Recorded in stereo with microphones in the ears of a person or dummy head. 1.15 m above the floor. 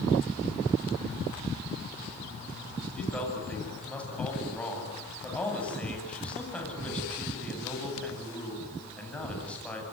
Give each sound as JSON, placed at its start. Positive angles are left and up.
{"t": 3.0, "sound": "a man speaking", "side_deg": 5, "distance_m": 9.0}